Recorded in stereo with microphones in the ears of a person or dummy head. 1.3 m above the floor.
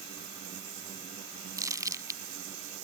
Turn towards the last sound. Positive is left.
turn(degrees=-15)  # may be behind; listen again after turning